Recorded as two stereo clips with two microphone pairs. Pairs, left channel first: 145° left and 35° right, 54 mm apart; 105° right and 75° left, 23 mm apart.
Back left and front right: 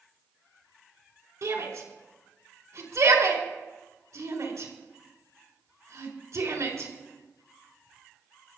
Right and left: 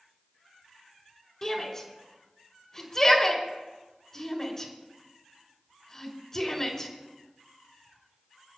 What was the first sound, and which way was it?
A shout, 40° right.